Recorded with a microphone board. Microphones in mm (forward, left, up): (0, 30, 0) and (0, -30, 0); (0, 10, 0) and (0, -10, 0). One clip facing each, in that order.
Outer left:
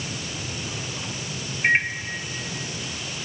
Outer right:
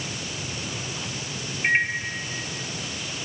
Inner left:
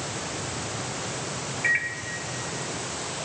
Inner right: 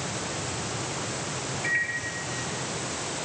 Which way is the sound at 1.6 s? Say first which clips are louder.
Outer left 1 dB, inner left 3 dB; 20° left (ahead or behind).